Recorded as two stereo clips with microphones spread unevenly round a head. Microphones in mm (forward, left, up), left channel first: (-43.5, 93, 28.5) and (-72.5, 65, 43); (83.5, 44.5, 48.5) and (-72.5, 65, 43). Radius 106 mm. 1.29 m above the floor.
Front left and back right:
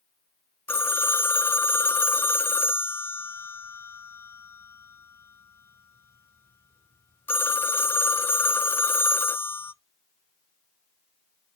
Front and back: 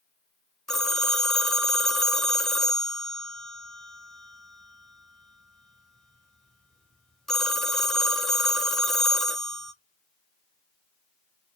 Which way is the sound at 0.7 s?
80° left.